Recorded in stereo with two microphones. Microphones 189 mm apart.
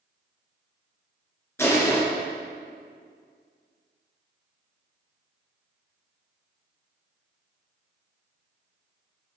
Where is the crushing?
15° left (ahead or behind), 2 m.